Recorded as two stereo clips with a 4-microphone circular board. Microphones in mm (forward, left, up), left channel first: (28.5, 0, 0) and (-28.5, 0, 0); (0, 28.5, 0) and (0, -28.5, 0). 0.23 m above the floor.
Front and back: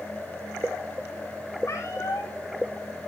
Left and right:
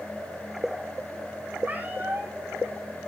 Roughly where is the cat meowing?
Ahead right.